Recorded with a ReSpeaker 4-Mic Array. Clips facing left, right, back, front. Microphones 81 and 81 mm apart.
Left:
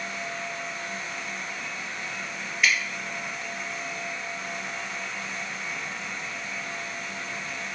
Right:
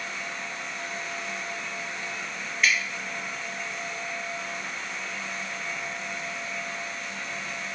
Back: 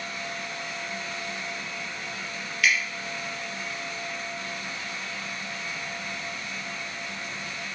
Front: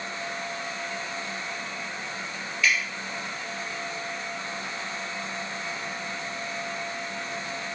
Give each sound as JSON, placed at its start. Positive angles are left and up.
{"t": 2.6, "sound": "dripping", "azimuth_deg": 175, "distance_m": 1.6}